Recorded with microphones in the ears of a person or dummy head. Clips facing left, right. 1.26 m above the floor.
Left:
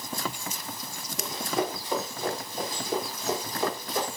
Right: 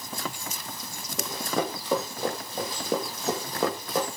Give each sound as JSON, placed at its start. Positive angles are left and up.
{"t": 1.2, "sound": "running footsteps", "side_deg": -60, "distance_m": 3.0}